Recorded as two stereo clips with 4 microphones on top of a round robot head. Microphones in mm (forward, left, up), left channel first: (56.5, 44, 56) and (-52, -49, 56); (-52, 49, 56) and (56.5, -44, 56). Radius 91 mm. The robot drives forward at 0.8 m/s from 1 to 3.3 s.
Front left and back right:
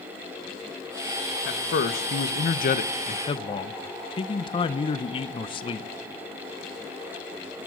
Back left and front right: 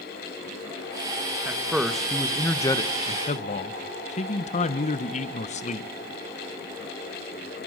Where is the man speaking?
40° left, 1.7 m; by 5.9 s 95° left, 1.1 m.